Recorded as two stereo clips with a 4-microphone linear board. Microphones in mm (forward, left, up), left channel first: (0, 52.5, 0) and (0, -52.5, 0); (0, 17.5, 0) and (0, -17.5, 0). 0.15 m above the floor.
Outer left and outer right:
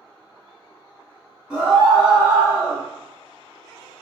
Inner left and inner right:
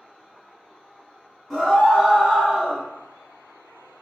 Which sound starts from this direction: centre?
A scream, at 1.5 s.